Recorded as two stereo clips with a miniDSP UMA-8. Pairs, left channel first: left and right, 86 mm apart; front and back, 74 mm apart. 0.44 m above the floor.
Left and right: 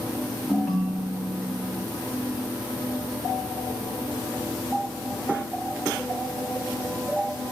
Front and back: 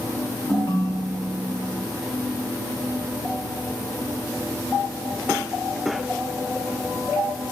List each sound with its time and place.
0.5 s a ringtone: straight behind, 1.5 m